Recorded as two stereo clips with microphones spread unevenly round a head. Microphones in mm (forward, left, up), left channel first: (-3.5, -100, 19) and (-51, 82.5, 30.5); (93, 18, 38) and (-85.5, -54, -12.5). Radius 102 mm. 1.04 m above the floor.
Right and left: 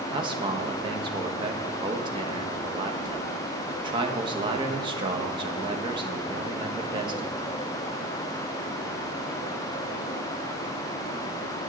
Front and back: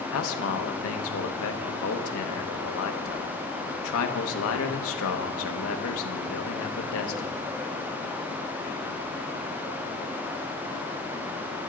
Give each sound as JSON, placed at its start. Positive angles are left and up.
{"t": 0.1, "sound": "a man speaking", "azimuth_deg": 40, "distance_m": 1.1}